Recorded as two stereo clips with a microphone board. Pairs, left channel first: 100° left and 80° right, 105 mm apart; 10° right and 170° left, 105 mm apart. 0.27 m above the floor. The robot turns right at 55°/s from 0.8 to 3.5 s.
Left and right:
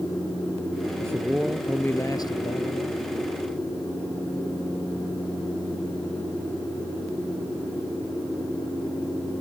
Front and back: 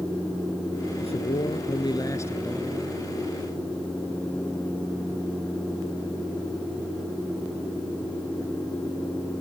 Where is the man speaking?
20° right; by 3.0 s 90° left.